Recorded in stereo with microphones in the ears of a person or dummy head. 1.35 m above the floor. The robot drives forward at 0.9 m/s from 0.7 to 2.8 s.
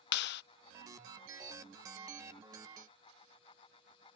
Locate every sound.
0.1 s a clap: 65° left (ahead or behind)